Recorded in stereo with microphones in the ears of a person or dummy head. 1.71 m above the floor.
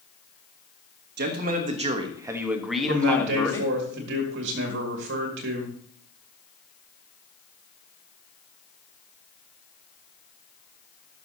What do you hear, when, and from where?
1.2 s a man speaking: 55° right (ahead or behind), 1.2 m; by 3.7 s 20° left (ahead or behind), 1.6 m
2.9 s a man speaking: 65° right (ahead or behind), 2.0 m